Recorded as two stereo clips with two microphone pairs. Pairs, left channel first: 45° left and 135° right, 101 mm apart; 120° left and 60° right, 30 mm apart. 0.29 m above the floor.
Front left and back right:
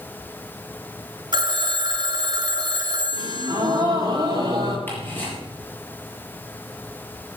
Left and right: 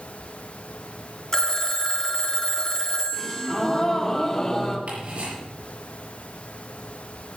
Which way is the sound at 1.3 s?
175° right.